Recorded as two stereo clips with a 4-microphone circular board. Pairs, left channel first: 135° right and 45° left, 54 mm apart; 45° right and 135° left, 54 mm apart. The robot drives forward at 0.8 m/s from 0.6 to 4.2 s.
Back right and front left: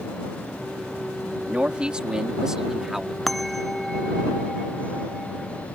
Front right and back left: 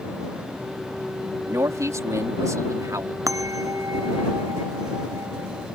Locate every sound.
1.5 s a man speaking: 115° left; by 3.2 s 130° left
3.3 s a bell: 135° left; by 5.7 s 140° left